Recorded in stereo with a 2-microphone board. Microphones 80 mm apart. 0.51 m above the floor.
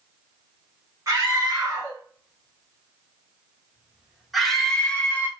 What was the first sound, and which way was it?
A scream, 40° right (ahead or behind).